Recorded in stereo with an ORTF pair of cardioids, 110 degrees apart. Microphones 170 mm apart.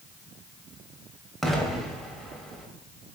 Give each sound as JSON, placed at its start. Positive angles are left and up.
{"t": 1.4, "sound": "an explosion", "azimuth_deg": 0, "distance_m": 0.7}